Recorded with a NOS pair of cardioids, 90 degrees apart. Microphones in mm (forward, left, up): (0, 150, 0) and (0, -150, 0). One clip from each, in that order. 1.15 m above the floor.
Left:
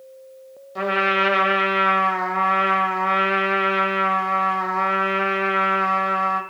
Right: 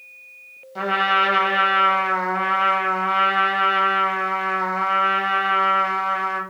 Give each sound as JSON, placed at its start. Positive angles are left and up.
{"t": 0.8, "sound": "a trumpet", "azimuth_deg": 5, "distance_m": 0.7}